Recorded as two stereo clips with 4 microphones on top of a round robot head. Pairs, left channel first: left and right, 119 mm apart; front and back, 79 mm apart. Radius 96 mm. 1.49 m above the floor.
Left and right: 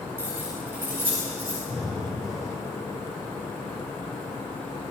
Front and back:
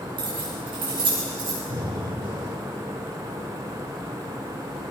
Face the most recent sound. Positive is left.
turn(degrees=180)